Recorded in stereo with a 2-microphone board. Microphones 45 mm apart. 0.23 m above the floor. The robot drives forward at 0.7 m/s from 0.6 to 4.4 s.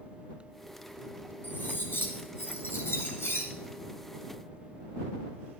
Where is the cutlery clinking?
50° left (ahead or behind), 2.5 m; by 3.5 s 75° left (ahead or behind), 1.8 m.